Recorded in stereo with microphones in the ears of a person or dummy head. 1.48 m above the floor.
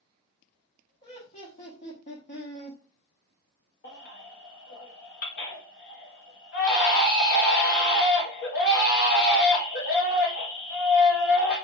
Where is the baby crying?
60° left (ahead or behind), 1.4 m.